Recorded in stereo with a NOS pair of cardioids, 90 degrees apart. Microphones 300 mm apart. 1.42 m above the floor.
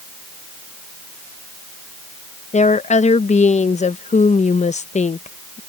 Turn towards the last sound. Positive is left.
turn(degrees=25)